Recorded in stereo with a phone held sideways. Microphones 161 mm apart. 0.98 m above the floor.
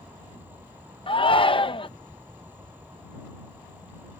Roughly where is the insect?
Centre.